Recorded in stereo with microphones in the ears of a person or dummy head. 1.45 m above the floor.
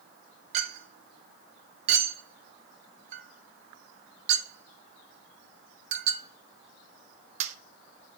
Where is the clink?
40° right (ahead or behind), 1.1 m.